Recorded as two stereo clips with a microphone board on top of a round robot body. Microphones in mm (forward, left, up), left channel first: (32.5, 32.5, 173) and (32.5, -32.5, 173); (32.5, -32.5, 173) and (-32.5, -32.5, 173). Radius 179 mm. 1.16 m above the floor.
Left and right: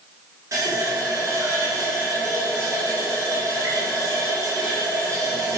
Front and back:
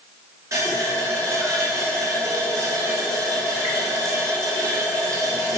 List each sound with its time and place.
0.5 s a running tap: 140° right, 3 m